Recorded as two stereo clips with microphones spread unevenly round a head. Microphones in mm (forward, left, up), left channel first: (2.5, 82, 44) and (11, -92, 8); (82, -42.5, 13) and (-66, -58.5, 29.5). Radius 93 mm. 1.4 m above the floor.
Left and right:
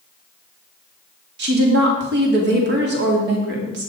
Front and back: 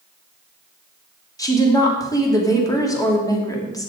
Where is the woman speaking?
60° right, 3 m.